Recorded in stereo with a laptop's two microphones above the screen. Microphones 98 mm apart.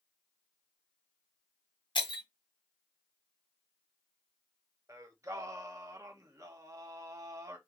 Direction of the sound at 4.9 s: 35° right (ahead or behind).